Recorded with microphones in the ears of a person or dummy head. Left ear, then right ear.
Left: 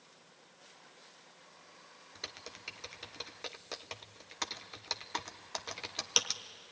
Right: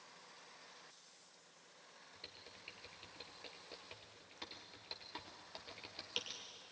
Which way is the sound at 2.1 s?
55° left (ahead or behind).